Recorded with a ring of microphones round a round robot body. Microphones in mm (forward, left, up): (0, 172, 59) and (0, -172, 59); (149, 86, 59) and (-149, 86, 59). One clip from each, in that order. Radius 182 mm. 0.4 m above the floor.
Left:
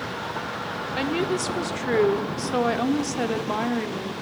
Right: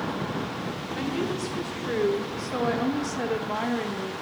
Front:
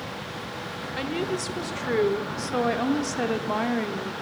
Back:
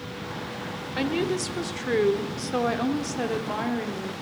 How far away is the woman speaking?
About 1.7 m.